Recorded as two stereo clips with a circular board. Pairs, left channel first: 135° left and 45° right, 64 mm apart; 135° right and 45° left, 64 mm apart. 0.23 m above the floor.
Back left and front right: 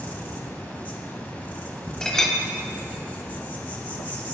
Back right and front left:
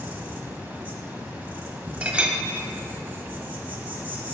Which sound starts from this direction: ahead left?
A clink, at 2.0 s.